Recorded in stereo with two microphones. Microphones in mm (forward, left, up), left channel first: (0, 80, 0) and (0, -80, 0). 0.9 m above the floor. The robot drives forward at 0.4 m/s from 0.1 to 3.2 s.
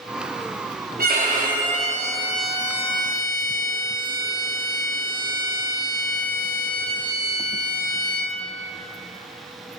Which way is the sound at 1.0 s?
70° right (ahead or behind).